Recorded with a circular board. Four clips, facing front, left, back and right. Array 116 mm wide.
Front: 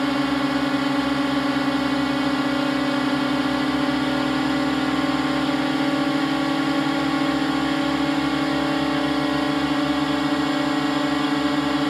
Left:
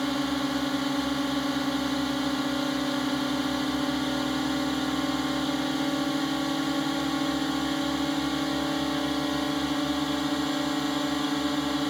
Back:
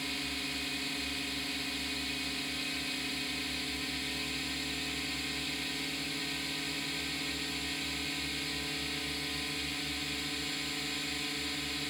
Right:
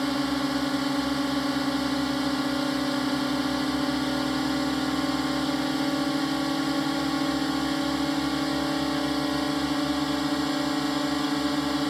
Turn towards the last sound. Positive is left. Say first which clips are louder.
# right 1 dB, front 20 dB
turn(degrees=-5)